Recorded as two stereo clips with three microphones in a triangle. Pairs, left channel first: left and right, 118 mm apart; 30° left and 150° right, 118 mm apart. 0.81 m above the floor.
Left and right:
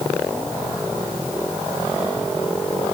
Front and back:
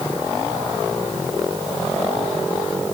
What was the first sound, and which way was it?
Only background noise.